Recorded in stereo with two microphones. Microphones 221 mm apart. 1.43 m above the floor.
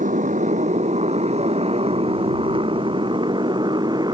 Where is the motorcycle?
35° right (ahead or behind); by 4.2 s 20° right (ahead or behind).